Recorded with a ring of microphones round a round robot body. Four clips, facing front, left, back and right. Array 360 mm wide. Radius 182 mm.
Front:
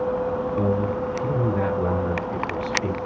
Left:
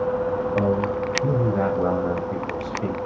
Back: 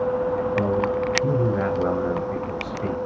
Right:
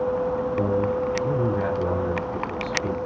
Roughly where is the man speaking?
Left.